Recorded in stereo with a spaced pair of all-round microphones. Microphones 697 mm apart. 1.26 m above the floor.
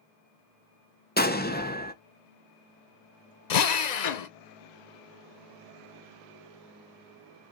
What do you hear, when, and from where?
1.2 s an explosion: 15° left (ahead or behind), 0.7 m
3.5 s a drill: 75° left (ahead or behind), 0.7 m